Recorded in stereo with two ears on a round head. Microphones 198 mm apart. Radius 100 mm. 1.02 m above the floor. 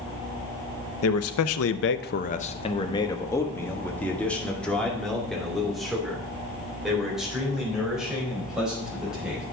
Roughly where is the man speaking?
Left.